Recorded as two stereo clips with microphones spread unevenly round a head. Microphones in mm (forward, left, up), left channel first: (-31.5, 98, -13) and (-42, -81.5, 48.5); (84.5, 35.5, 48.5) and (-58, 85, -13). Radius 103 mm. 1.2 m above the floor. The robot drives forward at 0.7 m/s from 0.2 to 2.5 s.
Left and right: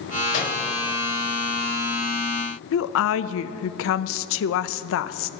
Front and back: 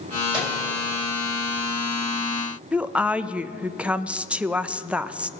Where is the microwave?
100° left, 5 m.